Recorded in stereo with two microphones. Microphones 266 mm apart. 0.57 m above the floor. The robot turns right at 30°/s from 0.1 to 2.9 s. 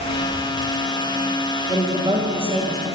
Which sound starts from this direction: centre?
A woman speaking, at 1.7 s.